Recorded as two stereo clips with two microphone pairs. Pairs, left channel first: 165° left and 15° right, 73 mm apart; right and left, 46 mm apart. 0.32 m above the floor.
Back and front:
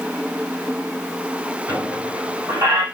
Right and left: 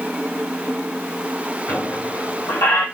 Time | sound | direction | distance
1.7 | a squeak | 70° right | 1.9 m